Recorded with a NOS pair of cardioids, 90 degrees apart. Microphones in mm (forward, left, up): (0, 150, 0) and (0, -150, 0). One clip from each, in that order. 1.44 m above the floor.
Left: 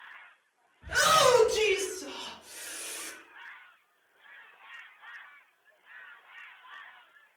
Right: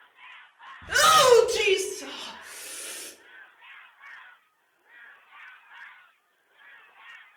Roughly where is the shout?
Ahead right.